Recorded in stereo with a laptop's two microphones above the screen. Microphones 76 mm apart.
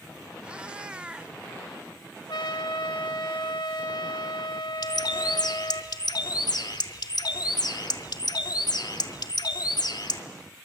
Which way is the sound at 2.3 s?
80° left.